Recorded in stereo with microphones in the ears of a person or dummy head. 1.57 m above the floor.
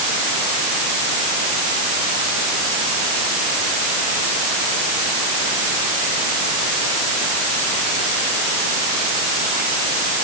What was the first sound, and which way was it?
Only background noise.